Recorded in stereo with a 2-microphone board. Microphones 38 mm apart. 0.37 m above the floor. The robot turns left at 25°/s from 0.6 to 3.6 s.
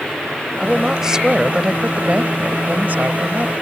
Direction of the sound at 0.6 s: 5° right.